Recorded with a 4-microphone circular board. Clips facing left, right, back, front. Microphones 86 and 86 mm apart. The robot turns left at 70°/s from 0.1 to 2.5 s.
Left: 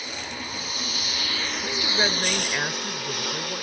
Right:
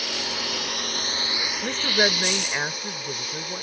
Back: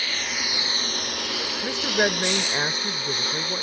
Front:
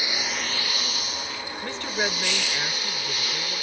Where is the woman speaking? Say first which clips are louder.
Right 4 dB, back 5 dB; 110° right; by 3.6 s 175° right.